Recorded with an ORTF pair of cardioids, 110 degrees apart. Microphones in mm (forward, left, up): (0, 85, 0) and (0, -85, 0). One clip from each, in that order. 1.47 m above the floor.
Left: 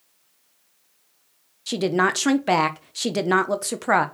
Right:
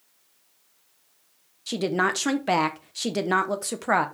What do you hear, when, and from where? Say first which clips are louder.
1.7 s a woman speaking: left 3 dB; 15° left, 1.2 m